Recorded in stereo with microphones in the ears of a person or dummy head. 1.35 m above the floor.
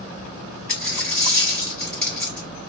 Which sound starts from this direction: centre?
A dropped coin, at 0.7 s.